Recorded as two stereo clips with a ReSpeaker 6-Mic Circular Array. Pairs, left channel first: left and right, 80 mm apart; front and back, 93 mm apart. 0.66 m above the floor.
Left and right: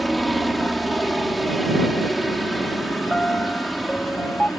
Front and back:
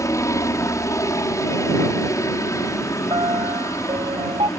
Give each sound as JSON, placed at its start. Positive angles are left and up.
{"t": 0.0, "sound": "a helicopter", "azimuth_deg": 0}
{"t": 3.1, "sound": "a piano", "azimuth_deg": 165}